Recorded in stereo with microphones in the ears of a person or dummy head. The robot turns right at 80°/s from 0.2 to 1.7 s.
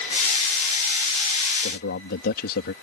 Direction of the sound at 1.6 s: 60° left (ahead or behind).